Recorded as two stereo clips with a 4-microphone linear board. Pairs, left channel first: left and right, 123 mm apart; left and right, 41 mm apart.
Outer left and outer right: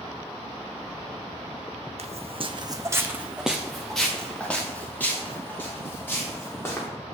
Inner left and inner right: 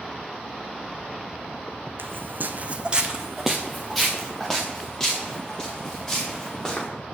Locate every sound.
2.0 s footsteps: 70° right (ahead or behind), 0.7 m; by 6.9 s 20° left (ahead or behind), 3.5 m